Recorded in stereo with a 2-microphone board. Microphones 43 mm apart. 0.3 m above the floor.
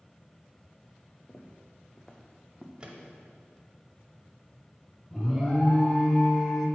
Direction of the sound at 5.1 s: 10° left (ahead or behind).